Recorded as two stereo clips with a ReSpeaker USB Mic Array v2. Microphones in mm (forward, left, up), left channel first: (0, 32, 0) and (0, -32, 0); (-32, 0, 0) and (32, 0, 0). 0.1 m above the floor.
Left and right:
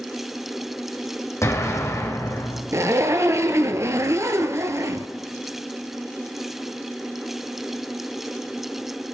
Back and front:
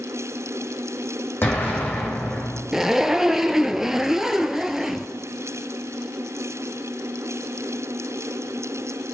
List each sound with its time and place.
1.4 s an explosion: 125° left, 2.5 m
2.7 s a zipper: 80° right, 0.7 m